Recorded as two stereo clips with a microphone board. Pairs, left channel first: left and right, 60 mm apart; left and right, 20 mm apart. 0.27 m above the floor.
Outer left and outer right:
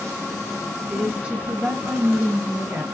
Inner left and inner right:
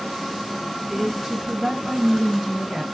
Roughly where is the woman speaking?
Centre.